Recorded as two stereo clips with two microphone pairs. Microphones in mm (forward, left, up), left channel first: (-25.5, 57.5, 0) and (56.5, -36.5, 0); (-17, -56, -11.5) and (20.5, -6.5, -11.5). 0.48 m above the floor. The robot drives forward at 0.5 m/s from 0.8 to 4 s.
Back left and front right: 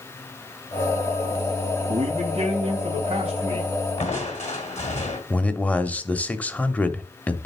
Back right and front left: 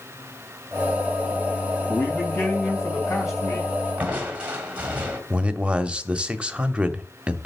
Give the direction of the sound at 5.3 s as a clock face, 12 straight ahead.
9 o'clock.